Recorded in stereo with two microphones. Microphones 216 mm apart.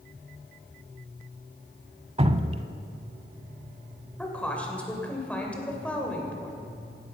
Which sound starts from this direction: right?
Dripping, at 2.2 s.